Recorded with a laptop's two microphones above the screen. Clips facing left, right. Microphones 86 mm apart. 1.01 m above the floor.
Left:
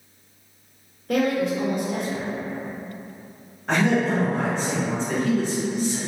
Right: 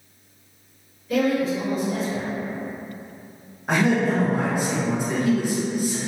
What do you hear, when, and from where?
1.1 s a woman speaking: 60° left (ahead or behind), 0.7 m
3.7 s a man speaking: 10° right (ahead or behind), 0.7 m